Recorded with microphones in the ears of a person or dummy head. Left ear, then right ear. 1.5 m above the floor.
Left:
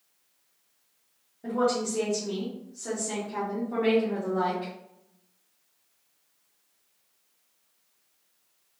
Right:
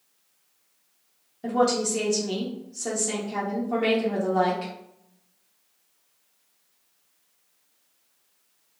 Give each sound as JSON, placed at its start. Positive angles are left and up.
{"t": 1.4, "sound": "a woman speaking", "side_deg": -80, "distance_m": 0.8}